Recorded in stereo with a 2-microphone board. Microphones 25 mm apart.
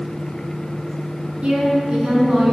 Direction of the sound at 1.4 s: 50° right (ahead or behind).